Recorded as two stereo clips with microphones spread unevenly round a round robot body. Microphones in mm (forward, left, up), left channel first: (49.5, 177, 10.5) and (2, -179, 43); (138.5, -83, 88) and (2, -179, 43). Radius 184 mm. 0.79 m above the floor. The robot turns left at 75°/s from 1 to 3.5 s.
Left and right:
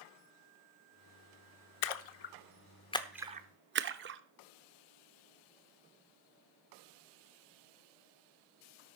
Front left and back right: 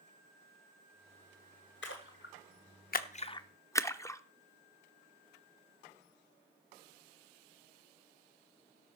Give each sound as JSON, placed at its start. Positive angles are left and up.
{"t": 1.8, "sound": "a splash", "azimuth_deg": 90, "distance_m": 0.9}